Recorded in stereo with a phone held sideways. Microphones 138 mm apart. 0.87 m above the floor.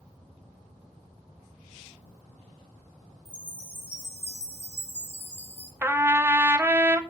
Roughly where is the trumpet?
Centre.